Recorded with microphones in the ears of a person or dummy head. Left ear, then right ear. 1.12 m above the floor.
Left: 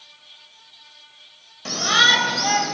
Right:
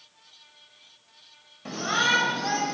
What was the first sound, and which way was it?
A shout, 25° left (ahead or behind).